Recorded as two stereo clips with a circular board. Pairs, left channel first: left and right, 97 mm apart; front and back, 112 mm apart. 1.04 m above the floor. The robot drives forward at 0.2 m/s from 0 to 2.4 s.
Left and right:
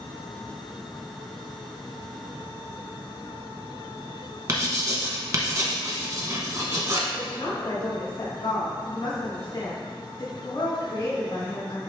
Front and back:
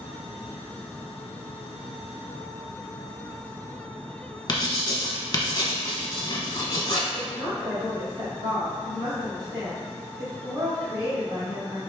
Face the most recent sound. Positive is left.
turn(degrees=125)